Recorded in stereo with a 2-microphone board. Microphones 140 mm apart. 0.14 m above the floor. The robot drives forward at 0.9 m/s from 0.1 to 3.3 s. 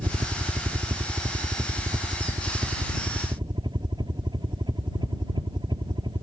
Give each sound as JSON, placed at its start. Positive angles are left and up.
{"t": 0.0, "sound": "a helicopter", "side_deg": -35}